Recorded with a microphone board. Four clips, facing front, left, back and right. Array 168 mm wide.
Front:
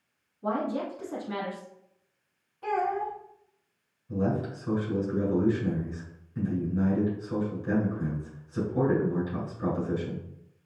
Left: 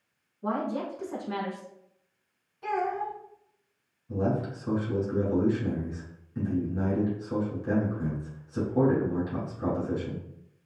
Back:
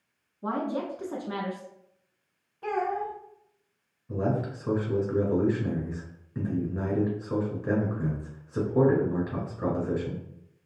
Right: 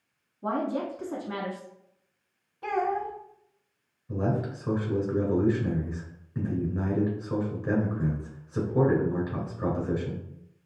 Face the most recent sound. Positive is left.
turn(degrees=-140)